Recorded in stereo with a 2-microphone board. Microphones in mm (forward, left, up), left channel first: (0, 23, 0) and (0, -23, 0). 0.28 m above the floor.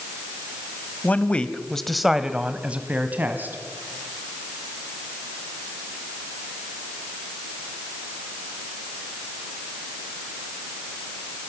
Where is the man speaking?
35° left (ahead or behind), 1.4 m; by 3.6 s 45° right (ahead or behind), 2 m.